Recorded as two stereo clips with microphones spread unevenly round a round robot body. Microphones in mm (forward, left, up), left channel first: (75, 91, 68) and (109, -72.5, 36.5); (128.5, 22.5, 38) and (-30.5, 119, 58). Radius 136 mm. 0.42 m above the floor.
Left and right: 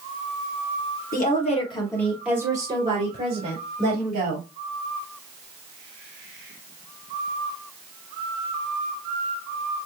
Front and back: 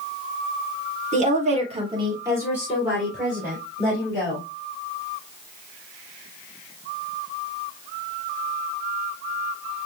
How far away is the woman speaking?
About 1.8 m.